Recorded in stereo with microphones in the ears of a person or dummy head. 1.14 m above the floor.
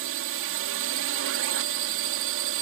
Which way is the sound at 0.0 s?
60° right (ahead or behind).